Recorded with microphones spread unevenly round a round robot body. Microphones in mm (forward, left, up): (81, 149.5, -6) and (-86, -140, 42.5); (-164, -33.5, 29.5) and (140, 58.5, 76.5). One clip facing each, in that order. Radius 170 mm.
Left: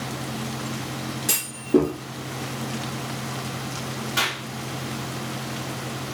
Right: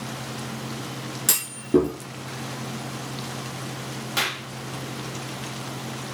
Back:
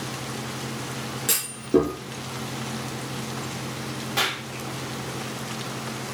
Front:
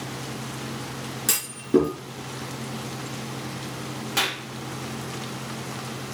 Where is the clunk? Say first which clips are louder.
Left 1 dB, front 1 dB; 60° right, 2 m.